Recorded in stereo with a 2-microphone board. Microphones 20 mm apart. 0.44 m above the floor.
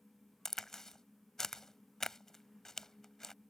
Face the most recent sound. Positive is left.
turn(degrees=25)  # may be behind; listen again after turning